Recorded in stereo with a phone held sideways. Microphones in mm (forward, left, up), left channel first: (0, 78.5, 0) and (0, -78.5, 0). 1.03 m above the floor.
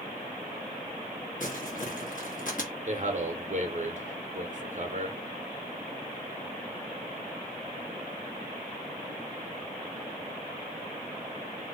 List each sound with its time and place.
1.4 s crumpling: 60° left (ahead or behind), 1.3 m
2.9 s a man speaking: 50° right (ahead or behind), 0.9 m